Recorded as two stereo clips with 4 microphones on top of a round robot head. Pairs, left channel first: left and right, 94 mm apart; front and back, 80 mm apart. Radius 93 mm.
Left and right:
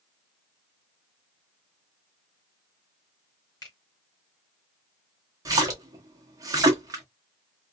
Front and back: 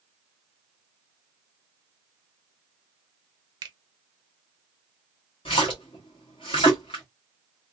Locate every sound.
3.6 s a finger snap: 150° left, 0.9 m
5.5 s a splash: 40° right, 0.8 m